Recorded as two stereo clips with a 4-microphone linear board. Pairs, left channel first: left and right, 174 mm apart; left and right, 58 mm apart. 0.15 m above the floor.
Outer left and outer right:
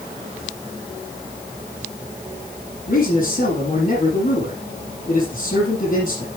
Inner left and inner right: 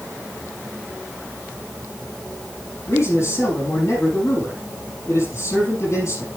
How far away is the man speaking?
About 4.5 m.